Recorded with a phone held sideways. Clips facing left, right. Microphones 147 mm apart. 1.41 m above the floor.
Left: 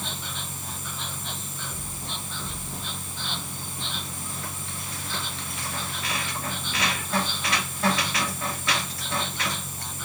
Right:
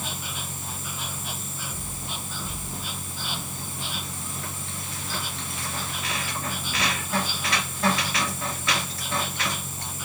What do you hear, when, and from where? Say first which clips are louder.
0.0 s an insect: right 1 dB; 10° right (ahead or behind)